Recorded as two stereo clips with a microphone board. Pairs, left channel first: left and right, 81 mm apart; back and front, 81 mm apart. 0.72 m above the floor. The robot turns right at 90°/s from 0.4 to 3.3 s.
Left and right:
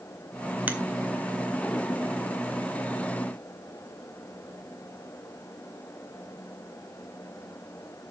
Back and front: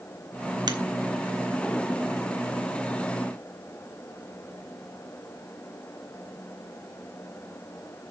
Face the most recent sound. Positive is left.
turn(degrees=-150)